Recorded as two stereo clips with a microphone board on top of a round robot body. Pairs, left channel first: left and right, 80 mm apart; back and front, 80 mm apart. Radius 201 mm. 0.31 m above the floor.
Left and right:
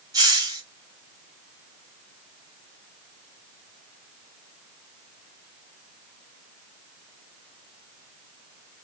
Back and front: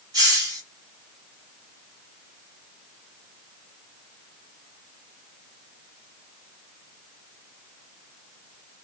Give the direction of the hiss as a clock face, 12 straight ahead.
1 o'clock.